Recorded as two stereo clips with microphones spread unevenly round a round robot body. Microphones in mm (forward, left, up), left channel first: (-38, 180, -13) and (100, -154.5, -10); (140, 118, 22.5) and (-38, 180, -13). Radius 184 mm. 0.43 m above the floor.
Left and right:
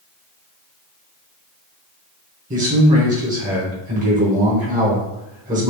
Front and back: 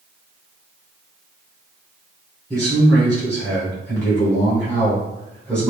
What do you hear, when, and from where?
2.5 s a man speaking: 120° right, 1.0 m